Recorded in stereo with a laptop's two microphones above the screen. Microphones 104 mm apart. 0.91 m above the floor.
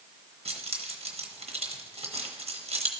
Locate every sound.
0.5 s keys jangling: 75° right (ahead or behind), 1.0 m